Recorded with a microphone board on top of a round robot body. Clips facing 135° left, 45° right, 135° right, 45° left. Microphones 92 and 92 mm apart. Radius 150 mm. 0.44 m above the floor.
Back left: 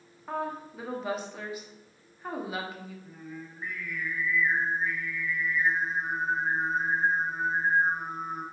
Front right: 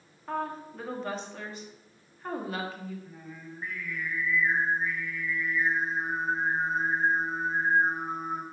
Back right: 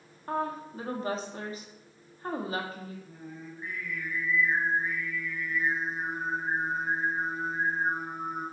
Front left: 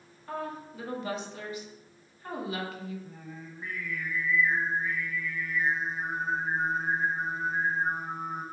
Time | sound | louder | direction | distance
0.3 | a woman speaking | even, back right 4 dB | 145° right | 0.9 m
3.0 | singing | back left 2 dB, back right 1 dB | 45° left | 0.6 m